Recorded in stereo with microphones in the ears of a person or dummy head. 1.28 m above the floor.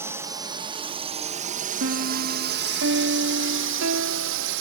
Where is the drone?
15° right (ahead or behind); by 4.6 s 70° right (ahead or behind).